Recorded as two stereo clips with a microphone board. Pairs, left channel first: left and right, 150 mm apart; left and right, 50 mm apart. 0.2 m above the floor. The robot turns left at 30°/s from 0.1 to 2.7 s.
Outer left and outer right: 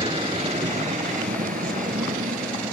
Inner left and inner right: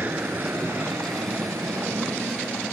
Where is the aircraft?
35° right (ahead or behind); by 2.7 s 60° right (ahead or behind).